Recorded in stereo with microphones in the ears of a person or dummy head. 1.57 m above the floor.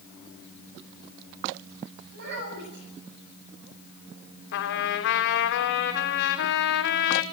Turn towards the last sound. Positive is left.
turn(degrees=60)  # may be behind; listen again after turning